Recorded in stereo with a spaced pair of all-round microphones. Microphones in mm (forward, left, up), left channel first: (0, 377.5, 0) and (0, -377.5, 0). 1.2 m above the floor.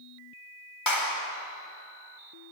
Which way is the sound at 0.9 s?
25° left (ahead or behind).